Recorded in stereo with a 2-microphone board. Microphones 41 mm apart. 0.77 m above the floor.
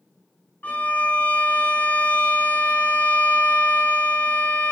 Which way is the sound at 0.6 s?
50° left (ahead or behind).